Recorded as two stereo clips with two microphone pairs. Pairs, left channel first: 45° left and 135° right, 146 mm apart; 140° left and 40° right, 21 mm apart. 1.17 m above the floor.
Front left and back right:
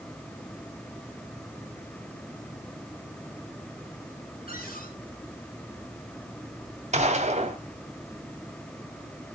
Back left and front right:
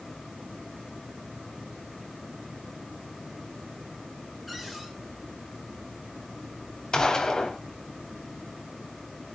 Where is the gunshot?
175° right, 2.5 m.